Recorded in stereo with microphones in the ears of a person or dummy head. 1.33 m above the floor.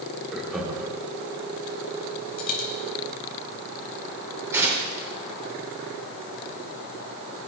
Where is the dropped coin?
55° left (ahead or behind), 3 m.